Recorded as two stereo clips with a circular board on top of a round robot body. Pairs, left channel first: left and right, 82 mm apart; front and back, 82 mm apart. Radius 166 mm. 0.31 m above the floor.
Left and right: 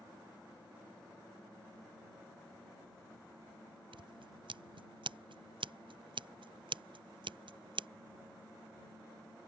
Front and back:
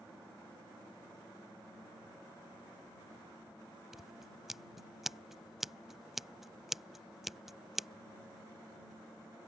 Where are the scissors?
95° right.